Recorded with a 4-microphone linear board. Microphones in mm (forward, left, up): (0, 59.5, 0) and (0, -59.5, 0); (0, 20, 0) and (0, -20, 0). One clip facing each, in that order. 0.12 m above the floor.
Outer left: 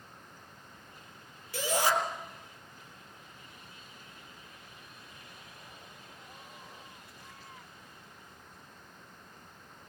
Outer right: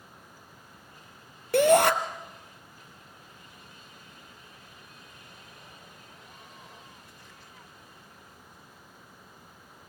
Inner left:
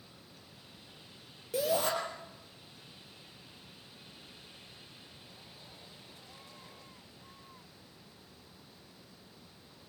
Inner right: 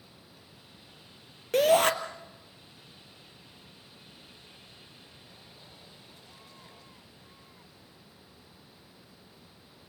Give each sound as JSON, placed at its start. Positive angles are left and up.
{"t": 1.5, "sound": "a shout", "side_deg": -60, "distance_m": 2.5}